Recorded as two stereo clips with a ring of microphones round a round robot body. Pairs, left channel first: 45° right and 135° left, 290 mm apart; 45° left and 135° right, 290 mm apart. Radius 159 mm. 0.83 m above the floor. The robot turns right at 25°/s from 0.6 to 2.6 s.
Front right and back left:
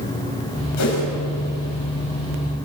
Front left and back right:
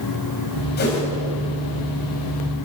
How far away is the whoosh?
About 5.5 m.